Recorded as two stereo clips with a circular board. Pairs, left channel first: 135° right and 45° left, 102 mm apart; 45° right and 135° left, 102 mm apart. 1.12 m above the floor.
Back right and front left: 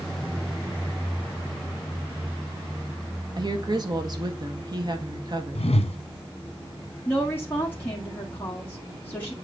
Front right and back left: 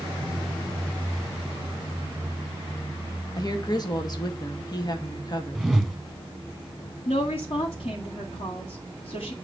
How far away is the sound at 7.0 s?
About 1.6 m.